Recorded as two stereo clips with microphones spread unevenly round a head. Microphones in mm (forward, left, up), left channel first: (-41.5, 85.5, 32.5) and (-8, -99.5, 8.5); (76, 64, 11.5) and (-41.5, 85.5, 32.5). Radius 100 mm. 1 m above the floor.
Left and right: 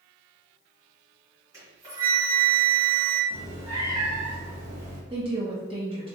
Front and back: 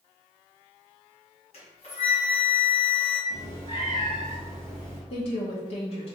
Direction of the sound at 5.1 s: 25° right.